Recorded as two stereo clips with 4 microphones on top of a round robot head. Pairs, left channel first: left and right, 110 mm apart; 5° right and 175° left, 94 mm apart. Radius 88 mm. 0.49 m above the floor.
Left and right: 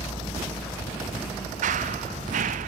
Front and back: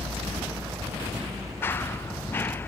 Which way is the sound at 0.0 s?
120° left.